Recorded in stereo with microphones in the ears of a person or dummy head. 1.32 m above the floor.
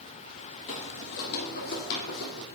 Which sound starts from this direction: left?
Footsteps, at 0.7 s.